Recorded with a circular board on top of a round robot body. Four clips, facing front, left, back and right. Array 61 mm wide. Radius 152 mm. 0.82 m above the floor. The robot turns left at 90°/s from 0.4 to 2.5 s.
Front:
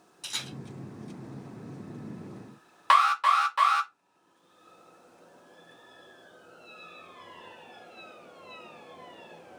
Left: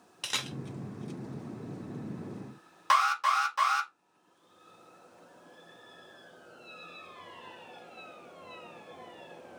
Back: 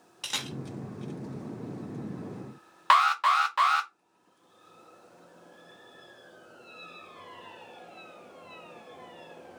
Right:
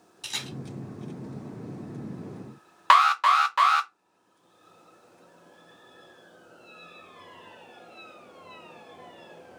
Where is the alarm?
100° right, 1.0 m.